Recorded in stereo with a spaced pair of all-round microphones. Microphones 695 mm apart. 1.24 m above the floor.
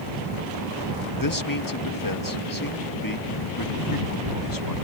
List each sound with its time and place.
1.2 s a man speaking: 30° left (ahead or behind)